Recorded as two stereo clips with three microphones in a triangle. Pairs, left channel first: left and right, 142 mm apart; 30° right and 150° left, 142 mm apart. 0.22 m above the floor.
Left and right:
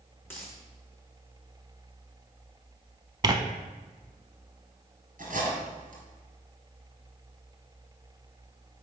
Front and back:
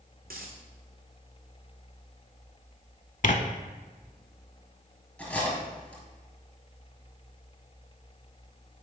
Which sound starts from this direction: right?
Cutlery clinking, at 5.2 s.